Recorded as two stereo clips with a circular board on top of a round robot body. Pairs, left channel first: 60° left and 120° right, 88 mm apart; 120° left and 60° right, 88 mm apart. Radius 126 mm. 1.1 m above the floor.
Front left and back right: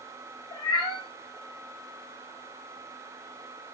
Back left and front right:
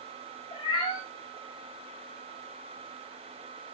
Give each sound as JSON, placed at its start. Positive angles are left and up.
{"t": 0.5, "sound": "a cat meowing", "azimuth_deg": 95, "distance_m": 0.7}